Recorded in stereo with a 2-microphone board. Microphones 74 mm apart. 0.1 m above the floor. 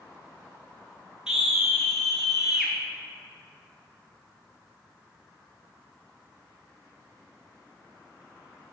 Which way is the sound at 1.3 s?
10° right (ahead or behind).